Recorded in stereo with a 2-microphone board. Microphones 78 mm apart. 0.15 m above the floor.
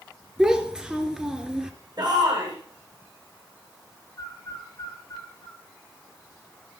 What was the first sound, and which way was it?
A child speaking, 10° right (ahead or behind).